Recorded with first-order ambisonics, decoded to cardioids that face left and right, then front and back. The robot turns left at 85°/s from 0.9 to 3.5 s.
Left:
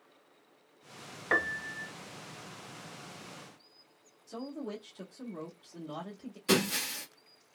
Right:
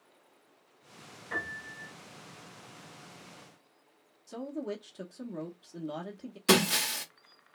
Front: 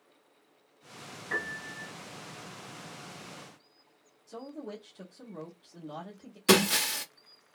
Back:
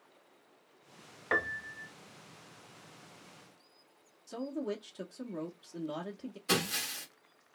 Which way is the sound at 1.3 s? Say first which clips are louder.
Left 6 dB, back 2 dB; 125° left.